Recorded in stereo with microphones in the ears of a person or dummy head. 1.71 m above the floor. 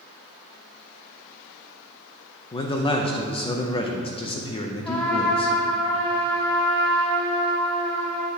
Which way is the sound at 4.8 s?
20° left (ahead or behind).